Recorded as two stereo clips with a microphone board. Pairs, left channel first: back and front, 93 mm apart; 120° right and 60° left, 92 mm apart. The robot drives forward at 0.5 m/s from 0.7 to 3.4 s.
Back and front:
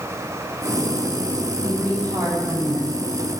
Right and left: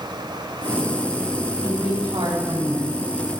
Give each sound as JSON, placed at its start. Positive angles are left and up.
{"t": 1.6, "sound": "a woman speaking", "azimuth_deg": 45, "distance_m": 10.0}